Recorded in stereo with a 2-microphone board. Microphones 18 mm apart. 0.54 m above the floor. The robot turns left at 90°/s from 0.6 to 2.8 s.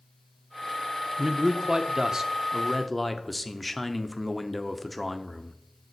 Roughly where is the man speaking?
Ahead right.